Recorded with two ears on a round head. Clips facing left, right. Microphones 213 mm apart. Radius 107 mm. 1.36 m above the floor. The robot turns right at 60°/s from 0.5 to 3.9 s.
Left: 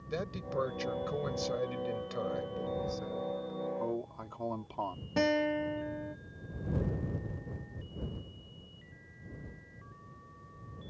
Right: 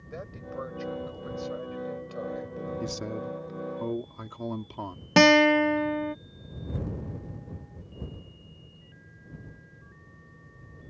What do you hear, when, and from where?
0.1 s a man speaking: 55° left; by 2.7 s 175° right
2.8 s a man speaking: 95° right; by 5.1 s 30° right
5.2 s a guitar: 85° right